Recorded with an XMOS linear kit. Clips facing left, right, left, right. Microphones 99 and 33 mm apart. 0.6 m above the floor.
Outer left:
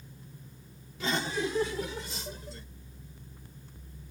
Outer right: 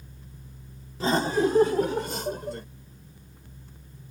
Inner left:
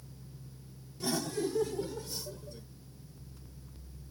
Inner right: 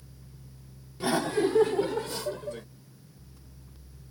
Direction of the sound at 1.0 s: 40° right (ahead or behind).